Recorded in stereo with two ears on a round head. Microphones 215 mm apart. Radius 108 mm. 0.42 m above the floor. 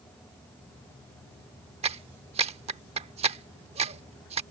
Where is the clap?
25° right (ahead or behind).